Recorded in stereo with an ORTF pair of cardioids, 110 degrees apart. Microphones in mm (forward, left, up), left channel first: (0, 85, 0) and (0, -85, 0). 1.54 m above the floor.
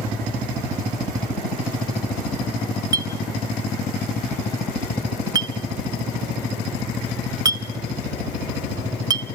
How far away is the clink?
About 1.4 m.